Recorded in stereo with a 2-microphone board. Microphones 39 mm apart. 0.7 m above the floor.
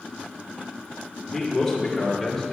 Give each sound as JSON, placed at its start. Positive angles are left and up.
{"t": 1.2, "sound": "a man speaking", "side_deg": 5, "distance_m": 1.9}